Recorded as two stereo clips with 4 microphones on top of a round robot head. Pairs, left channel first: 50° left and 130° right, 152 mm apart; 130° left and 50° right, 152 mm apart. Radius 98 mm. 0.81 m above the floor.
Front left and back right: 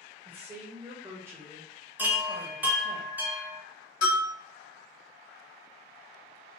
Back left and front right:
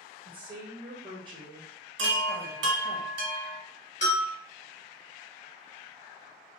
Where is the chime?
50° right, 0.5 m.